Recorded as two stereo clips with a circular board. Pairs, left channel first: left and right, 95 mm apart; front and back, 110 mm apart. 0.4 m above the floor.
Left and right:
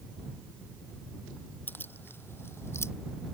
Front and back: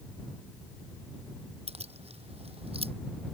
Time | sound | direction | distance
1.7 | keys jangling | 160° left | ?